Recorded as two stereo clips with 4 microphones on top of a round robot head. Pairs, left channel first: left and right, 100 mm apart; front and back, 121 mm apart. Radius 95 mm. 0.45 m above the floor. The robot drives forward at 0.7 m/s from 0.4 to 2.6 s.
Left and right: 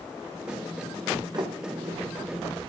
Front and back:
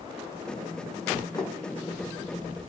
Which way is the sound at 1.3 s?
60° right.